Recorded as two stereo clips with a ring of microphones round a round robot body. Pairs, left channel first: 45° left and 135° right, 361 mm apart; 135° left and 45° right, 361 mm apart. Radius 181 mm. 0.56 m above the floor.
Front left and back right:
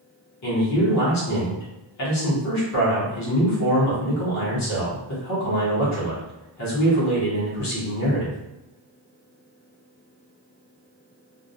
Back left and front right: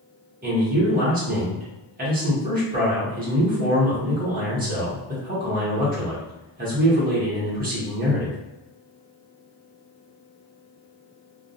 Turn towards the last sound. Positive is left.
turn(degrees=15)